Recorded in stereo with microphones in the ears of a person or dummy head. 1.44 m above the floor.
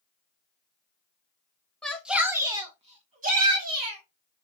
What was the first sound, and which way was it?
A shout, 10° left (ahead or behind).